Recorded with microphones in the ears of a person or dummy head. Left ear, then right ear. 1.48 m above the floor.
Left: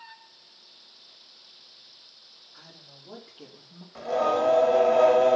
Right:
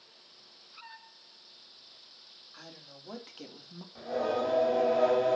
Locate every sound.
2.5 s a woman speaking: 65° right (ahead or behind), 3 m; by 3.9 s 55° right (ahead or behind), 1.9 m
4.0 s singing: 50° left (ahead or behind), 1.7 m